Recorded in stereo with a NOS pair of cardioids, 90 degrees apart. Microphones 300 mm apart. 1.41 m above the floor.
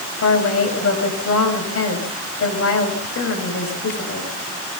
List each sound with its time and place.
0.2 s a woman speaking: 45° left, 9 m